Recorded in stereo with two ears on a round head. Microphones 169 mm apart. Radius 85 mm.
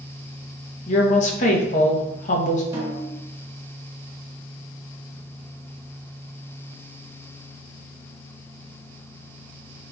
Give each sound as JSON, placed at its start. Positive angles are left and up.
{"t": 0.9, "sound": "a woman speaking", "side_deg": 40, "distance_m": 0.8}
{"t": 2.7, "sound": "a snare drum", "side_deg": -15, "distance_m": 1.7}